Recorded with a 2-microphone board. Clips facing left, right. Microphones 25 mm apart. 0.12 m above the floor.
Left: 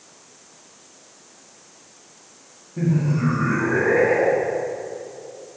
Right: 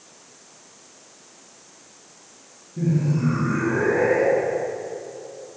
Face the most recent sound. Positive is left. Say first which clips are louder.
# left 1 dB
turn(degrees=45)  # may be behind; listen again after turning